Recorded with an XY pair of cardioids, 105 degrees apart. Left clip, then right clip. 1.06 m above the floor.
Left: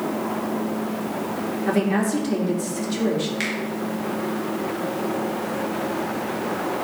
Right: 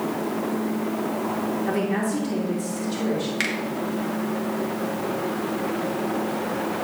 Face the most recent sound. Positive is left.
turn(degrees=-30)